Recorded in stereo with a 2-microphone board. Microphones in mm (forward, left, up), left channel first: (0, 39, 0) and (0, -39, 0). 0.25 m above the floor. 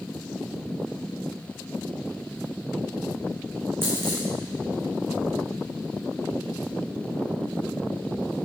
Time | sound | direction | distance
3.8 | a dropped coin | 30° right (ahead or behind) | 5.5 m